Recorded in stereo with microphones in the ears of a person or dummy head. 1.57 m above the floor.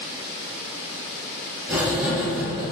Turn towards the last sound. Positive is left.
turn(degrees=-5)  # may be behind; listen again after turning